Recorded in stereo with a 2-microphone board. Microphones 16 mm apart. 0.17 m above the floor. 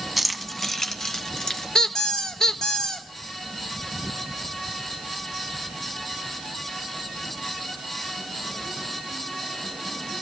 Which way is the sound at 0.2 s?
5° right (ahead or behind).